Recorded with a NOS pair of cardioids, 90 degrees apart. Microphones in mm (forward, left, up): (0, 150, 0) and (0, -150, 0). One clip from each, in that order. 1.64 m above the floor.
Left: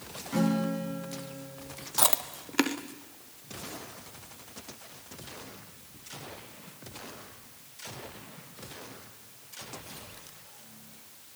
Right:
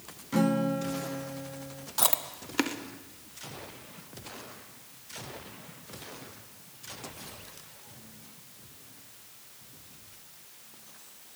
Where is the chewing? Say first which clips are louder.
Left 1 dB; 15° left, 1.2 m.